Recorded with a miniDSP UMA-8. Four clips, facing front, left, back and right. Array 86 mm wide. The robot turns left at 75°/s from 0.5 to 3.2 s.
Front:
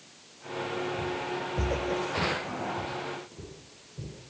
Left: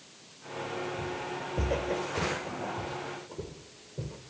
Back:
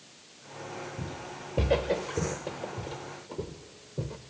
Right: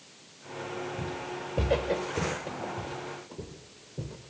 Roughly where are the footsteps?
Behind right.